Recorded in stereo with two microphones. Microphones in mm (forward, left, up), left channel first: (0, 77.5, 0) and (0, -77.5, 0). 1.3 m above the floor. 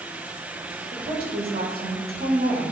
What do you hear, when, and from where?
0.9 s a woman speaking: 75° right (ahead or behind), 2.5 m